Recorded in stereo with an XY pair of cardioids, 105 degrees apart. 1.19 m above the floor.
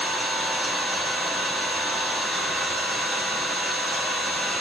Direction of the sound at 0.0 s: 30° right.